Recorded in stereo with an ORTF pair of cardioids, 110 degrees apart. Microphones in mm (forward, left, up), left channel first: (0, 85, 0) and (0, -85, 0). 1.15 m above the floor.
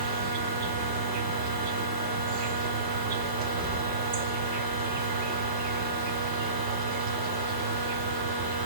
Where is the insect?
60° right, 1.9 m.